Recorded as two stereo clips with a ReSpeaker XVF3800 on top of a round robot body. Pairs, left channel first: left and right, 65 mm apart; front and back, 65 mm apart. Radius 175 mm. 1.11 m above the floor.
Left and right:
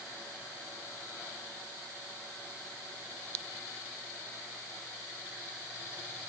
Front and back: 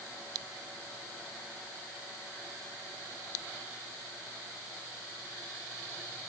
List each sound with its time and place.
Only background noise.